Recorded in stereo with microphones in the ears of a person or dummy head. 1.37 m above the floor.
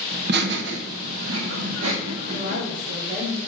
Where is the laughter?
60° right (ahead or behind), 1.1 m; by 2.6 s 50° right (ahead or behind), 1.4 m.